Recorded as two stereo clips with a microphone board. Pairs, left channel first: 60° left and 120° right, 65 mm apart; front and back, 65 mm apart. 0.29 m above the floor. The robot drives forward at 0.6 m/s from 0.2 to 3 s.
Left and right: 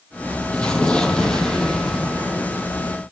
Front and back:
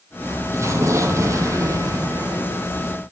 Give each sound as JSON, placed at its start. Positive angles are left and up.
{"t": 0.5, "sound": "an explosion", "azimuth_deg": 135, "distance_m": 4.0}